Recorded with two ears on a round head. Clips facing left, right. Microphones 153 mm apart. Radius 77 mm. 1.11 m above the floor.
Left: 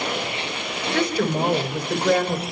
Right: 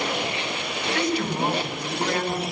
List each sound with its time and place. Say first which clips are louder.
0.9 s a woman speaking: left 4 dB; 70° left (ahead or behind), 5 m